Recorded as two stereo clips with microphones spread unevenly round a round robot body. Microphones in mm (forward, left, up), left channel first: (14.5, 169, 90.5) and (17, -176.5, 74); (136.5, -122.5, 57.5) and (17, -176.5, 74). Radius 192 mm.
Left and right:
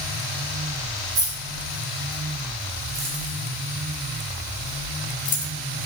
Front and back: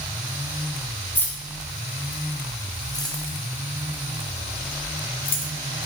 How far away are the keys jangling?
About 2.5 m.